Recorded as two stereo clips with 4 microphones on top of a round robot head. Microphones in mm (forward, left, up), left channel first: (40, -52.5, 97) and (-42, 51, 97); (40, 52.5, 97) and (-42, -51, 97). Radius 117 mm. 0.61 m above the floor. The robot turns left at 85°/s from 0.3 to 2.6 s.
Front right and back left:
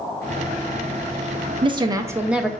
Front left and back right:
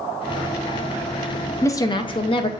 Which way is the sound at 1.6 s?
110° left.